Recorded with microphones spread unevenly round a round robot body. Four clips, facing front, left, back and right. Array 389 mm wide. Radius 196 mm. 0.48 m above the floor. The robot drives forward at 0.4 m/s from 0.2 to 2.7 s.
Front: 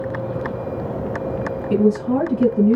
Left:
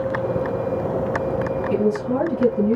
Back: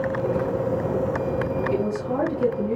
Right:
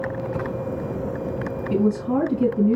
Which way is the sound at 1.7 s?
10° right.